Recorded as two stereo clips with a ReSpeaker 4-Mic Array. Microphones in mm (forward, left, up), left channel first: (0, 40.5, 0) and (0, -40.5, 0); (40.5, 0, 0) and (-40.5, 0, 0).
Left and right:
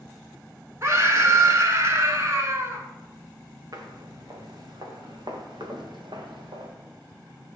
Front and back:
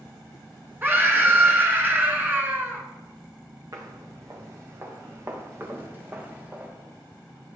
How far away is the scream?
About 1.7 m.